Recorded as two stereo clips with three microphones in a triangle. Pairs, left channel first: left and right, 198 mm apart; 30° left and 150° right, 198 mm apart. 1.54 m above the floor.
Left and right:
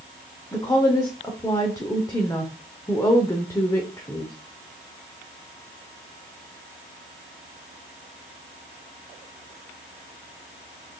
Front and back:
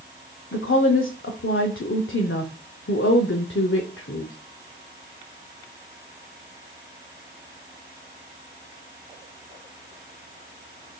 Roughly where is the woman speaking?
Ahead.